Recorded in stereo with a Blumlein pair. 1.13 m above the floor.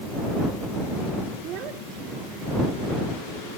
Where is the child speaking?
35° right.